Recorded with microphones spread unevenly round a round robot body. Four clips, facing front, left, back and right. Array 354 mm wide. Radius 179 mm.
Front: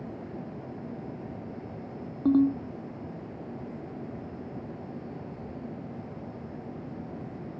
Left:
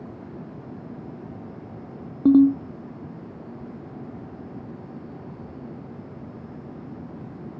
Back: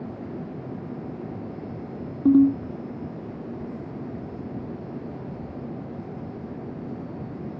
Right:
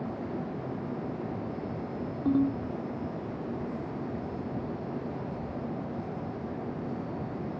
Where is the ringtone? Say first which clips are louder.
Left 11 dB, back 6 dB; 125° left.